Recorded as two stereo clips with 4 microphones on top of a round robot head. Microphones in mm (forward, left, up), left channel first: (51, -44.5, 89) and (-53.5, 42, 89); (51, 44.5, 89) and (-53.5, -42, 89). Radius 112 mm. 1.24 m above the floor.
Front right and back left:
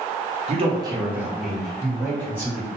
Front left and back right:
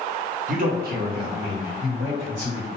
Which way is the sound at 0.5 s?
175° right.